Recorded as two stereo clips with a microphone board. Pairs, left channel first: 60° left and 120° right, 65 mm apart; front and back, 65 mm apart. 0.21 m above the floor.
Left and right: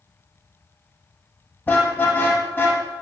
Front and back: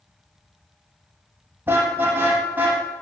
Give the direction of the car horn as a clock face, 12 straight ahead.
8 o'clock.